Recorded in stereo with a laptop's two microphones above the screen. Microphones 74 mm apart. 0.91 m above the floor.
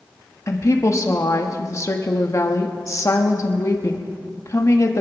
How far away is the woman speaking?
About 1.2 m.